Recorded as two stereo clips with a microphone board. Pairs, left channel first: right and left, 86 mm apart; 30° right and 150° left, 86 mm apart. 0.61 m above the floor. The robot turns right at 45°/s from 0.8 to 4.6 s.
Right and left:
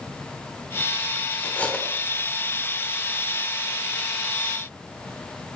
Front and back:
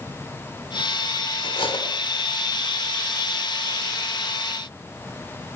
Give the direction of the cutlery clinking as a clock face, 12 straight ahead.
1 o'clock.